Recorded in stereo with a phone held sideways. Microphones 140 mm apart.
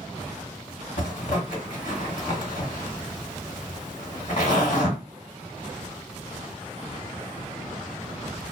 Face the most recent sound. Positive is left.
turn(degrees=70)  # may be behind; listen again after turning